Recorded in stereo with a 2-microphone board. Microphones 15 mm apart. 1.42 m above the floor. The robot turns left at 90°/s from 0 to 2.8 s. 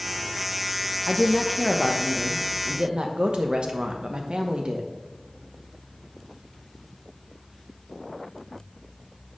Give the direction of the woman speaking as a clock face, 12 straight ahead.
10 o'clock.